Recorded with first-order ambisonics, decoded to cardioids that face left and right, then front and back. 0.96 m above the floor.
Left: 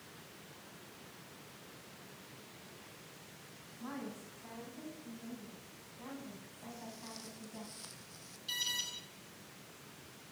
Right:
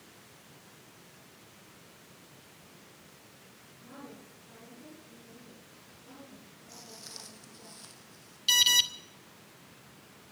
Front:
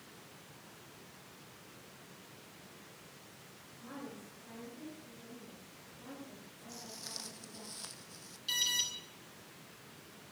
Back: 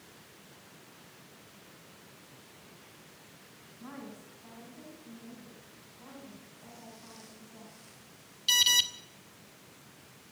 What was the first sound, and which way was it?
A woman speaking, 125° left.